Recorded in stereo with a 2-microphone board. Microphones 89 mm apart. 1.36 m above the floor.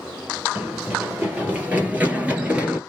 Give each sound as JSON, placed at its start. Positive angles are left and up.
{"t": 0.6, "sound": "running footsteps", "side_deg": -20, "distance_m": 1.8}